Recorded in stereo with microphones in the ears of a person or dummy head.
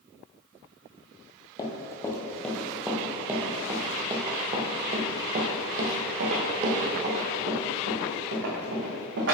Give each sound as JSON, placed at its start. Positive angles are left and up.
{"t": 1.6, "sound": "running footsteps", "side_deg": 20, "distance_m": 2.0}